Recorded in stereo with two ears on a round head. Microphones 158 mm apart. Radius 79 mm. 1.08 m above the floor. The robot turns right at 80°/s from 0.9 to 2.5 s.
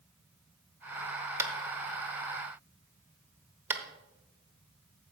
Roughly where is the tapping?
Centre.